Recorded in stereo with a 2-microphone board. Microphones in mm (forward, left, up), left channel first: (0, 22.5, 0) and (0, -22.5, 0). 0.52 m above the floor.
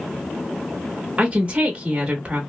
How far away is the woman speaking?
About 0.9 m.